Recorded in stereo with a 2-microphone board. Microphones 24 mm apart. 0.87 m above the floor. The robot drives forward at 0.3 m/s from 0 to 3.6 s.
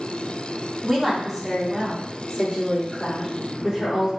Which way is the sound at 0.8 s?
10° right (ahead or behind).